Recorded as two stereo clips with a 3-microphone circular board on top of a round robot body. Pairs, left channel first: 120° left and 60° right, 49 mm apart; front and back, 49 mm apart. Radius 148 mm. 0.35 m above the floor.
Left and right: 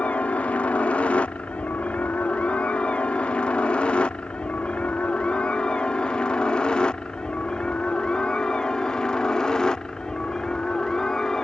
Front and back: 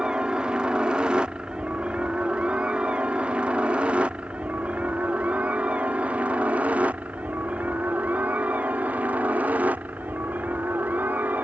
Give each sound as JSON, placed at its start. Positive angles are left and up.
{"t": 0.0, "sound": "a helicopter", "azimuth_deg": 130}